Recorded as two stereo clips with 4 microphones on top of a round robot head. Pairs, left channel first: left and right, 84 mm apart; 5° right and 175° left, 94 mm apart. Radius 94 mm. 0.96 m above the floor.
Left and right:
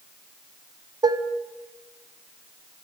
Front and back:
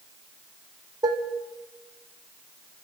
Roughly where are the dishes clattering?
Behind right.